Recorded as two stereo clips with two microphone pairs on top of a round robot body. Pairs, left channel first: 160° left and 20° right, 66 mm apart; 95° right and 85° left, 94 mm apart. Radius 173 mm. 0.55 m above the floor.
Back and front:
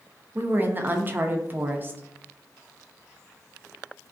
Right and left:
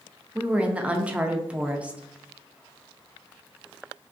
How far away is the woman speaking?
About 0.6 m.